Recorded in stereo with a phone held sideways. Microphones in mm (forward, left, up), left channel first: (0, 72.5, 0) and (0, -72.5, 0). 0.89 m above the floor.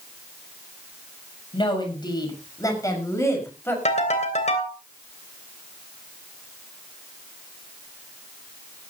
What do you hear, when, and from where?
1.5 s a woman speaking: 35° left (ahead or behind), 6 m; by 3.8 s 15° left (ahead or behind), 6 m
3.9 s a ringtone: 50° left (ahead or behind), 2.5 m